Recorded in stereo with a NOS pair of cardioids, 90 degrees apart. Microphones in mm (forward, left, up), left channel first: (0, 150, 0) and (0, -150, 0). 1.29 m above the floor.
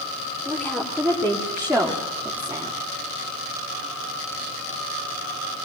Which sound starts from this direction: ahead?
A woman speaking, at 0.5 s.